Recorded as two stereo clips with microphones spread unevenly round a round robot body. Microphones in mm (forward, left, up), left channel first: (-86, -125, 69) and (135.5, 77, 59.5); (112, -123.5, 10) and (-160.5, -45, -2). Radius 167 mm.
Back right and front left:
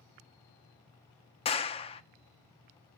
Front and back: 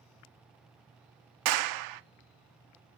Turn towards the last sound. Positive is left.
turn(degrees=150)